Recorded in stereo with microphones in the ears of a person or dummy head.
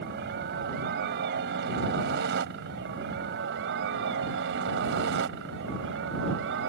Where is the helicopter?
60° right (ahead or behind); by 6.7 s 65° right (ahead or behind).